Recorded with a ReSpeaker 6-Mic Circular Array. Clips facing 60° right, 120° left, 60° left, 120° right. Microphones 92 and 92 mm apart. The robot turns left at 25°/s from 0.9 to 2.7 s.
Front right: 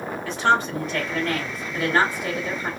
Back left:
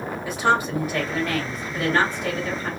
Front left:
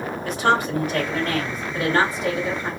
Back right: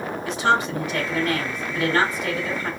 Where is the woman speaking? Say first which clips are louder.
Front right 1 dB, front left 1 dB; 45° left, 1.9 m; by 2.7 s straight ahead, 1.9 m.